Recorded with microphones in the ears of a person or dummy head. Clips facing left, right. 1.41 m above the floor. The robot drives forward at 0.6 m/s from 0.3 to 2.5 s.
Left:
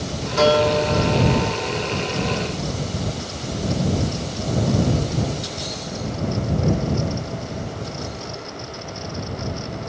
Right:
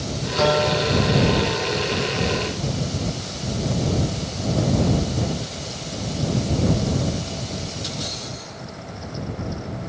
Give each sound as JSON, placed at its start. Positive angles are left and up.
{"t": 0.4, "sound": "a guitar", "side_deg": 75, "distance_m": 1.8}